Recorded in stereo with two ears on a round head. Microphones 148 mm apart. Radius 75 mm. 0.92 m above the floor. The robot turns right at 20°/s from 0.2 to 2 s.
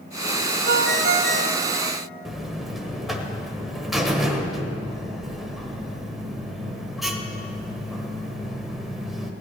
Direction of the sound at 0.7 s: 70° right (ahead or behind).